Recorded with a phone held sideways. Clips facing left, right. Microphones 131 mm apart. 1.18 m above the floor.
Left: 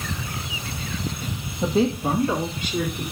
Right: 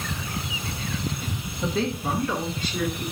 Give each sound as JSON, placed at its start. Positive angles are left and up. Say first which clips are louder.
{"t": 1.6, "sound": "a woman speaking", "louder": "left 5 dB", "side_deg": 25, "distance_m": 1.4}